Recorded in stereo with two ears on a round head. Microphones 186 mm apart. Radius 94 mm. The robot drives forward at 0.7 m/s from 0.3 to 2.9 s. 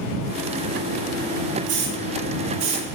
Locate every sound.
1.7 s a hiss: 55° right (ahead or behind), 1.9 m; by 2.9 s 70° right (ahead or behind), 1.7 m